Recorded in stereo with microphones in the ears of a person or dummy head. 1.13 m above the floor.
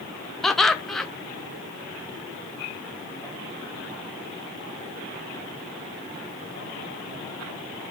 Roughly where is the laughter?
Centre.